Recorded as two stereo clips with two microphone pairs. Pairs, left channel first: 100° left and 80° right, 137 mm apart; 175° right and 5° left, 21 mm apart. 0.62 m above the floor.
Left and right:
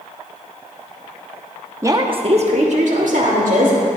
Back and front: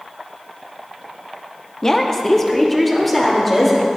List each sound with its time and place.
1.8 s a woman speaking: 135° right, 0.7 m; by 3.8 s 85° right, 2 m